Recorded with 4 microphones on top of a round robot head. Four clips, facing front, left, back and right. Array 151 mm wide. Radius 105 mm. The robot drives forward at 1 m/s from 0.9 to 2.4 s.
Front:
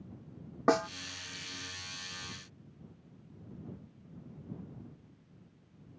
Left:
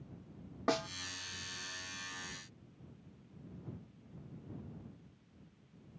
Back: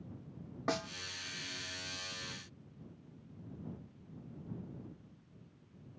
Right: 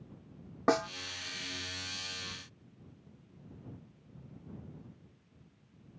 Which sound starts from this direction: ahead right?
A snare drum, at 0.7 s.